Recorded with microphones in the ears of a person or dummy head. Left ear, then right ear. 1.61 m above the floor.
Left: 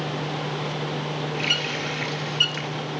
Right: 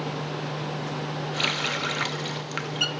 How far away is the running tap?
About 0.6 m.